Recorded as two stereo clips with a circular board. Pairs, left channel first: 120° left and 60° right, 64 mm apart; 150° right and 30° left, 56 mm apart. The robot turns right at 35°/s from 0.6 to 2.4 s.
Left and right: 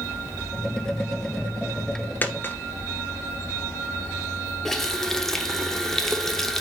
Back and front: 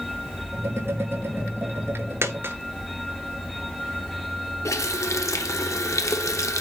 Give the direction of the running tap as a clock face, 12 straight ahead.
5 o'clock.